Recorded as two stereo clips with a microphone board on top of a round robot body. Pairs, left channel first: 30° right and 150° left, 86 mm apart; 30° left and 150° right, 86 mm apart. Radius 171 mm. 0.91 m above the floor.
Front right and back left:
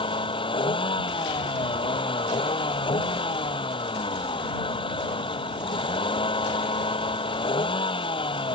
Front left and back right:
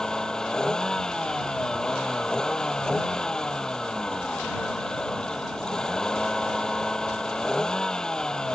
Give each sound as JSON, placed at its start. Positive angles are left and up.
{"t": 0.0, "sound": "a vehicle", "azimuth_deg": -50}